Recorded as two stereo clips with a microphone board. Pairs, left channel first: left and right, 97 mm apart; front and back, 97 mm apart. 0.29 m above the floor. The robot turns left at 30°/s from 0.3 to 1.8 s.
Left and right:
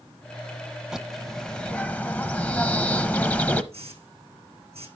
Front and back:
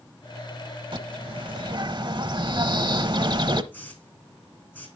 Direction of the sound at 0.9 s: 170° right.